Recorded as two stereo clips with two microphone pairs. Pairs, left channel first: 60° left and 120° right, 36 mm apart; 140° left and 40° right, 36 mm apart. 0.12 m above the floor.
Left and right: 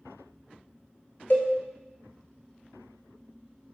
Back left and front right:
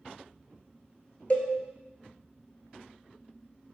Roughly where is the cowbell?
Left.